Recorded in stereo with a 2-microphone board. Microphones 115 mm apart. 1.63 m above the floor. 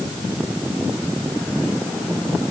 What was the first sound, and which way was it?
Only background noise.